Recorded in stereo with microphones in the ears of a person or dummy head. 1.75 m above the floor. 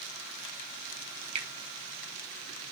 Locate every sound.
1.4 s a finger snap: 35° right (ahead or behind), 3.5 m